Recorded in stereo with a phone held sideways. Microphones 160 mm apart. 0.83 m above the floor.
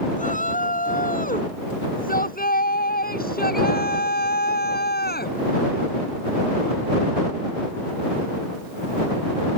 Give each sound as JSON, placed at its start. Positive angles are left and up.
{"t": 0.1, "sound": "a shout", "side_deg": 55}